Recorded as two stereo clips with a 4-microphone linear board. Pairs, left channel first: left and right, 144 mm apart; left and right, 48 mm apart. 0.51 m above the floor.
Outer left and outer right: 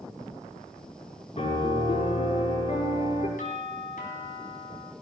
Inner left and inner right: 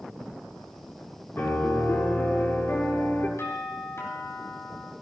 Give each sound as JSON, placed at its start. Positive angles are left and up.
{"t": 1.4, "sound": "a piano", "side_deg": 55, "distance_m": 6.0}
{"t": 3.4, "sound": "a doorbell", "side_deg": 75, "distance_m": 5.0}